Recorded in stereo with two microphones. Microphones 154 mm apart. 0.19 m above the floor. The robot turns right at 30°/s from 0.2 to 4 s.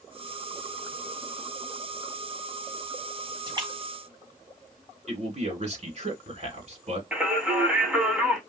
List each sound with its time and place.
3.5 s a splash: 30° right (ahead or behind), 1.8 m
5.1 s a man speaking: 45° right (ahead or behind), 2 m
7.1 s singing: 5° right (ahead or behind), 1.7 m